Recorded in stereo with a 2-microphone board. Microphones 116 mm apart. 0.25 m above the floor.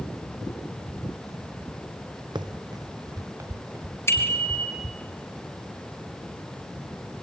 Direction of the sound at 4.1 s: 25° left (ahead or behind).